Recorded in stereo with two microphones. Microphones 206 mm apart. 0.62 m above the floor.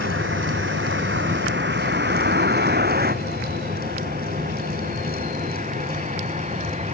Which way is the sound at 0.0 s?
80° right.